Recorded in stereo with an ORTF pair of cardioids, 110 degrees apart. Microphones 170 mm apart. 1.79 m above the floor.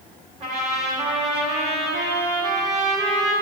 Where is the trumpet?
35° right, 1.8 m.